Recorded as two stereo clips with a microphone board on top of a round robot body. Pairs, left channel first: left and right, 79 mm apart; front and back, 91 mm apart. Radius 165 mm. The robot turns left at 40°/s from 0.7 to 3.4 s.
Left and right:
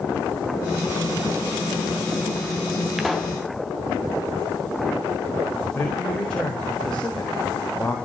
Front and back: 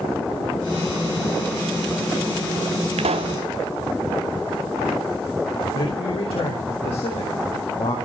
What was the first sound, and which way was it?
A pop, 175° right.